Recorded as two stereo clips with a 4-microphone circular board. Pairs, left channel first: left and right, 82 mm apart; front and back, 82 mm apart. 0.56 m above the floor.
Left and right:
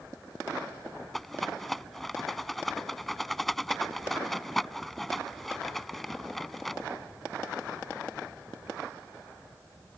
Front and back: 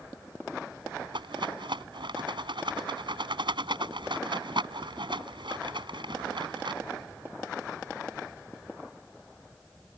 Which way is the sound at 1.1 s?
Straight behind.